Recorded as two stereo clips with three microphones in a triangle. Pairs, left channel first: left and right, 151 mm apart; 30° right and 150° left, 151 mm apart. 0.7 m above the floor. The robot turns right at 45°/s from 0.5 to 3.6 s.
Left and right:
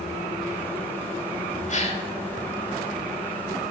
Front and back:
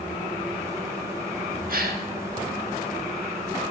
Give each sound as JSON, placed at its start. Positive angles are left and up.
{"t": 1.7, "sound": "a gasp", "azimuth_deg": 130, "distance_m": 1.3}